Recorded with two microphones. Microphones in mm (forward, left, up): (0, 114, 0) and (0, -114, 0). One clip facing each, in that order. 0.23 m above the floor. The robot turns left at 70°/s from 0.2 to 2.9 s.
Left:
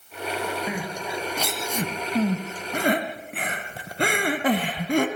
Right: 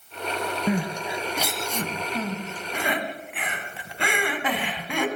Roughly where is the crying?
Right.